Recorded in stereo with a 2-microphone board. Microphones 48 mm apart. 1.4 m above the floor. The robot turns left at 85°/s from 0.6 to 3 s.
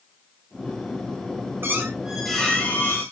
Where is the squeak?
125° right, 6 m; by 3.0 s 120° left, 6 m.